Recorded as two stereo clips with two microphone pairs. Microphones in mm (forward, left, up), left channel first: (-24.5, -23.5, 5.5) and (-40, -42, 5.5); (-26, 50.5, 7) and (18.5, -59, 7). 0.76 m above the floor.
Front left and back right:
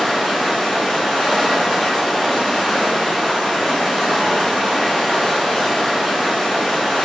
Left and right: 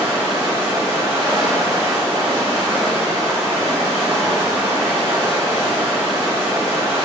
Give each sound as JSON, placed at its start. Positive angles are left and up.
{"t": 0.0, "sound": "running water", "azimuth_deg": -30, "distance_m": 1.5}